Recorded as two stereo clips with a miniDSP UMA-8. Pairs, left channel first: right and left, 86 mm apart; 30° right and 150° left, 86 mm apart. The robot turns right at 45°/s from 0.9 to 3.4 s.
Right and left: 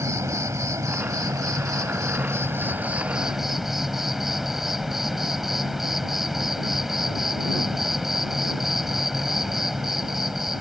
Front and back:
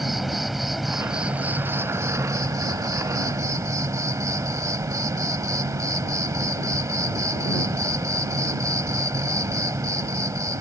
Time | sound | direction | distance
0.0 | an insect | 65° left | ?